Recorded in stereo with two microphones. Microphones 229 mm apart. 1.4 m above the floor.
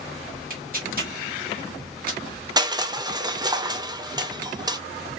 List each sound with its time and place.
0.5 s tearing paper: 40° right (ahead or behind), 1.9 m
2.6 s crushing: 15° right (ahead or behind), 0.5 m